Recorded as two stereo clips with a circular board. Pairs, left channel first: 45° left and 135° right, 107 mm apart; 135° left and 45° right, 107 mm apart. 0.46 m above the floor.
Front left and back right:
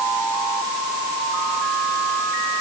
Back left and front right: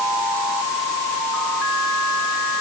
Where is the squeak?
No squeak in this recording.